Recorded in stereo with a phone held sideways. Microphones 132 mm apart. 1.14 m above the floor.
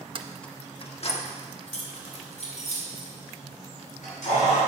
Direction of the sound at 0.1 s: 45° right (ahead or behind).